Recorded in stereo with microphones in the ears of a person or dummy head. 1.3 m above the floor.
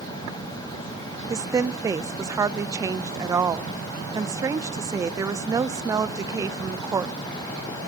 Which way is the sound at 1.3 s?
20° right (ahead or behind).